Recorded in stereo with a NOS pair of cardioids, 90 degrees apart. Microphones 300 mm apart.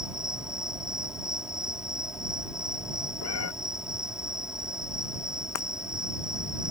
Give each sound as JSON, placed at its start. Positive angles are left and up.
{"t": 0.0, "sound": "an insect", "azimuth_deg": 0}
{"t": 3.2, "sound": "a cat meowing", "azimuth_deg": 55}
{"t": 5.5, "sound": "breaking glass", "azimuth_deg": 65}